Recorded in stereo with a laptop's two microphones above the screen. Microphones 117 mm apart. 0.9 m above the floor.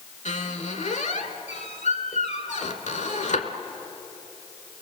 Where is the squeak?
70° left (ahead or behind), 1.7 m.